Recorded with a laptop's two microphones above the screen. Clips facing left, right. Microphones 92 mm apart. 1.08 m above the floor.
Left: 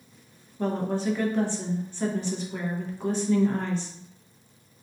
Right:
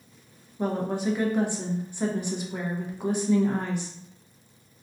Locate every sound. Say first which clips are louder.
0.6 s a woman speaking: even; 15° right (ahead or behind), 0.6 m